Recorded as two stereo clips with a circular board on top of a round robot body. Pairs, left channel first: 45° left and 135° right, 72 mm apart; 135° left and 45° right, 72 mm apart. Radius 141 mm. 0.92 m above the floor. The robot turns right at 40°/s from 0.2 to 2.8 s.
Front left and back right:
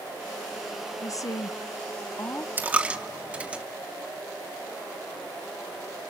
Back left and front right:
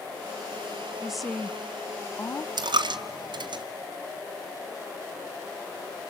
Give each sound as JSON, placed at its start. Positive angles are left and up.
{"t": 1.0, "sound": "a woman speaking", "azimuth_deg": 35, "distance_m": 1.1}
{"t": 2.6, "sound": "a dropped coin", "azimuth_deg": -70, "distance_m": 0.9}